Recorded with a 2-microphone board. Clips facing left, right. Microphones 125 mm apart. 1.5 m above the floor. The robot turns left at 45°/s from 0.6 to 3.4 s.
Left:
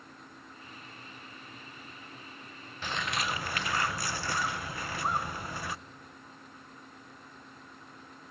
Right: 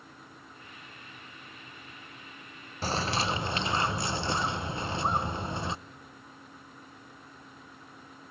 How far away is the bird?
About 0.5 m.